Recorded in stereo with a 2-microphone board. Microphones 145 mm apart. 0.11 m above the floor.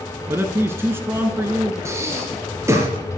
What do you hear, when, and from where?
0.3 s a man speaking: 15° right (ahead or behind), 1.1 m
1.9 s breathing: 20° right (ahead or behind), 2 m